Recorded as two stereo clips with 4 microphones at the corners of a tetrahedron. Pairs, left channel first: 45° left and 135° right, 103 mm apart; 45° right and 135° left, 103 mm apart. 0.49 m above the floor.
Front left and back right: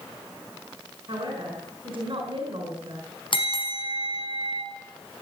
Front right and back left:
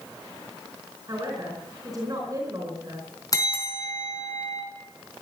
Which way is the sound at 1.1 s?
170° right.